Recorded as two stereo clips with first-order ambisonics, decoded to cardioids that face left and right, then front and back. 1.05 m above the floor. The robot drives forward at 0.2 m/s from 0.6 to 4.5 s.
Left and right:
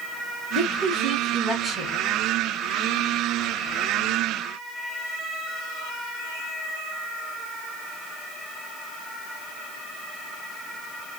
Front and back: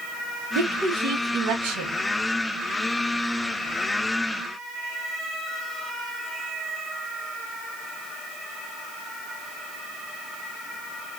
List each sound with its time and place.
0.6 s a woman speaking: straight behind, 1.4 m